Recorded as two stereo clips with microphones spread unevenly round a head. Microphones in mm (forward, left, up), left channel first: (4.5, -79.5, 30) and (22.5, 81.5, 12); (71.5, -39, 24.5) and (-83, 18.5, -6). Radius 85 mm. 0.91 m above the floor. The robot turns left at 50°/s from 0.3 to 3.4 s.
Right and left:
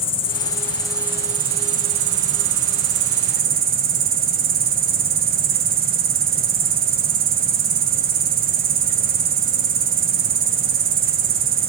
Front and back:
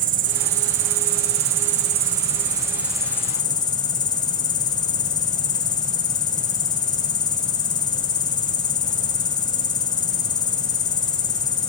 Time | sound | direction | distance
0.0 | an insect | 155° right | 0.8 m